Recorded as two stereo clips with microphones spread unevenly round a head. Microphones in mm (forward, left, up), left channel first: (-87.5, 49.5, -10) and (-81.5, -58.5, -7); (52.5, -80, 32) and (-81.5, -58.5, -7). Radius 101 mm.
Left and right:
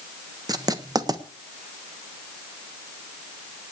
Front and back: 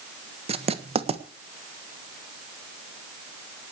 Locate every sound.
0.5 s writing: 140° right, 1.5 m